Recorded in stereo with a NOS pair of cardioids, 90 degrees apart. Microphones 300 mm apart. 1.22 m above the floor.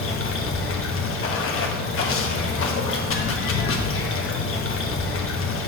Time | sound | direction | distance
0.0 | running water | 50° left | 1.2 m